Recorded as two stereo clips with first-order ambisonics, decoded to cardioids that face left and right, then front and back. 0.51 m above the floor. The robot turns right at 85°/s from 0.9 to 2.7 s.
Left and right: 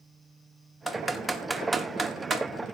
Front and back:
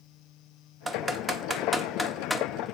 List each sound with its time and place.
0.9 s typing on a keyboard: 155° left, 1.1 m; by 2.4 s 80° right, 1.1 m